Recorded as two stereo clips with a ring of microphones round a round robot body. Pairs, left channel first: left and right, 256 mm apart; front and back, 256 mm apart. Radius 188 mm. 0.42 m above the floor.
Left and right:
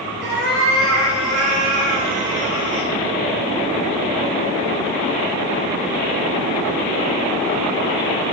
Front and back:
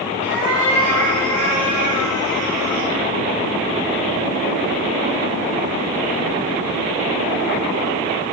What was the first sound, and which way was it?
A cat meowing, 130° right.